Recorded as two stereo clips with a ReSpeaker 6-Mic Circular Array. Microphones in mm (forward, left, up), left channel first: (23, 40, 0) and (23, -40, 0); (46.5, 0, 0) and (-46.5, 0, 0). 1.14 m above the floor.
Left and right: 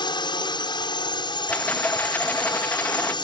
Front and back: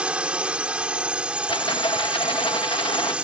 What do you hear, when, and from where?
0.0 s a drone: 100° left
1.5 s a rattle: 20° left